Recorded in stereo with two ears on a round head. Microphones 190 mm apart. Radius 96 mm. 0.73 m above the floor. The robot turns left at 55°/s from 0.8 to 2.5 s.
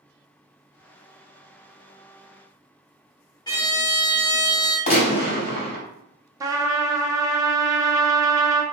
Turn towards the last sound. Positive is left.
turn(degrees=-15)  # may be behind; listen again after turning